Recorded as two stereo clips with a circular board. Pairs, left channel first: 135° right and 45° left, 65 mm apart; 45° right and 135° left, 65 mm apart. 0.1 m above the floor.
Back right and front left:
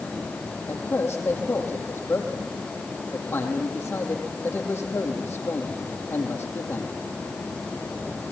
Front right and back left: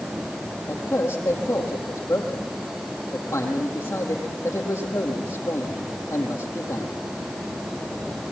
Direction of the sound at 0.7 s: 80° right.